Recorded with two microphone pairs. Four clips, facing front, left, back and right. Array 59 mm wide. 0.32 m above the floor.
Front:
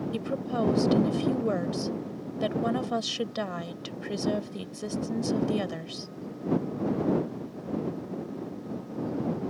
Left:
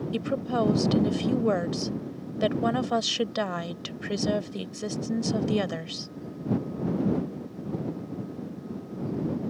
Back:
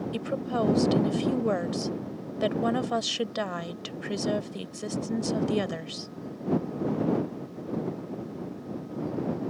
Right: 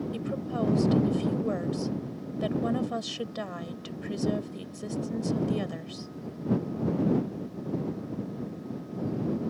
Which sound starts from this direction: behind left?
A woman speaking, at 0.1 s.